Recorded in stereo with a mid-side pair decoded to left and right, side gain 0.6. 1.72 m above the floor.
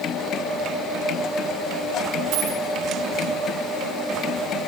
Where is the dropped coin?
65° right, 5 m.